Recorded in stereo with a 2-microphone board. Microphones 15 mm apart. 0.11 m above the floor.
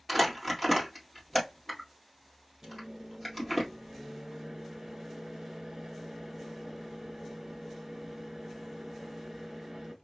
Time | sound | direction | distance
0.1 | crumpling | 5° right (ahead or behind) | 1.7 m
2.6 | a microwave | 35° right (ahead or behind) | 1.3 m